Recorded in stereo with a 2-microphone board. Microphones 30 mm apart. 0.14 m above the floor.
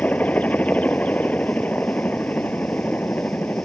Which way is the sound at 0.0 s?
55° left (ahead or behind).